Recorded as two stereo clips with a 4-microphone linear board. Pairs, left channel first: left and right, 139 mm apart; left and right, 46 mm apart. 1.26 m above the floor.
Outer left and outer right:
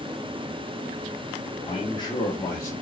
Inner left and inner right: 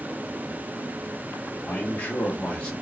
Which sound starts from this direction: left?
A man speaking, at 1.7 s.